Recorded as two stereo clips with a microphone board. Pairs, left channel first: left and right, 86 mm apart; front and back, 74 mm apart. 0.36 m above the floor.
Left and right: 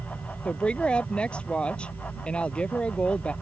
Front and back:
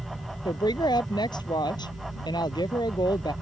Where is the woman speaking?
10° left.